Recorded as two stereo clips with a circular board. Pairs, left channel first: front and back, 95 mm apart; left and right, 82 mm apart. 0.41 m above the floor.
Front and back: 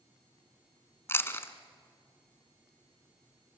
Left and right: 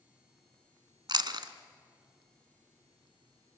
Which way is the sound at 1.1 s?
65° right.